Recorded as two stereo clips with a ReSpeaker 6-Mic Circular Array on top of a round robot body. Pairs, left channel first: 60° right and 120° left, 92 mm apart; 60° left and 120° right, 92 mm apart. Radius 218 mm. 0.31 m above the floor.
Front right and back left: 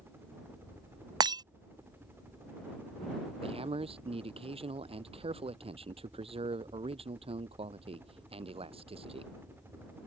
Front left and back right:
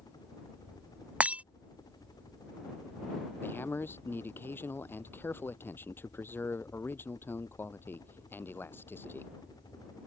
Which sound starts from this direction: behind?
Breaking glass, at 1.2 s.